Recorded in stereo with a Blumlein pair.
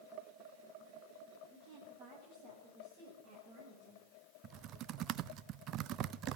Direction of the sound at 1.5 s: 40° right.